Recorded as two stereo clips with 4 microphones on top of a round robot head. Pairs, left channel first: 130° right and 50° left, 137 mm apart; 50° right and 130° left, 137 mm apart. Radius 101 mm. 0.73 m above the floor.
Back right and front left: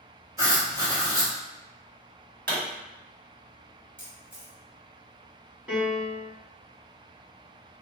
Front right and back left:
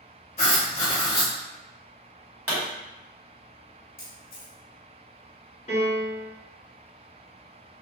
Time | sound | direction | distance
0.4 | writing | 15° right | 0.6 m
2.5 | a pop | 55° left | 1.5 m
4.0 | a camera shutter | 30° right | 1.1 m
5.7 | a piano | 30° right | 1.4 m